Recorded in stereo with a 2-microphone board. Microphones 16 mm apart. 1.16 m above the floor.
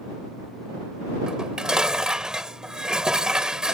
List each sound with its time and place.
1.3 s dishes clattering: 55° right (ahead or behind)